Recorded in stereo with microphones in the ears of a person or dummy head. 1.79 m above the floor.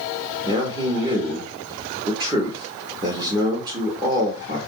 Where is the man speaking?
20° right (ahead or behind), 0.9 m.